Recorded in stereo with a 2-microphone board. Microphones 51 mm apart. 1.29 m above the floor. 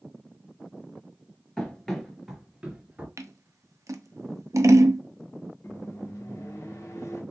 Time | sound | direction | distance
1.6 | running footsteps | 15° left (ahead or behind) | 1.3 m
3.2 | scissors | 85° right | 0.5 m
5.6 | a microwave | 70° left (ahead or behind) | 1.1 m